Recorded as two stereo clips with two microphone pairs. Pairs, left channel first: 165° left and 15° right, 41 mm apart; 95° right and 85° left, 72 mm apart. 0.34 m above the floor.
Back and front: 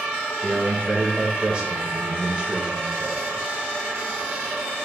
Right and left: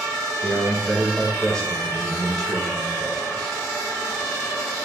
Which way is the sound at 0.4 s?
25° right.